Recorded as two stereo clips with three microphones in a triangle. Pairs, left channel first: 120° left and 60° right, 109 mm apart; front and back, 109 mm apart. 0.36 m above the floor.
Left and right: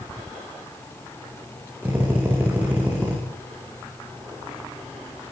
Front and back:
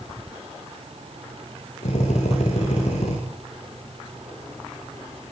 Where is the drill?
15° left, 9.5 m.